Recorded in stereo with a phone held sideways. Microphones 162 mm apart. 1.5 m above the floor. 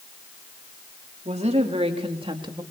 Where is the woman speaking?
45° right (ahead or behind), 3.5 m; by 2.6 s 25° right (ahead or behind), 2.5 m.